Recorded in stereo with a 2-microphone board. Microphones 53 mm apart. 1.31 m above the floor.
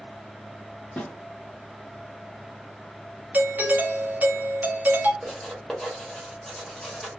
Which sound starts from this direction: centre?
Writing, at 5.2 s.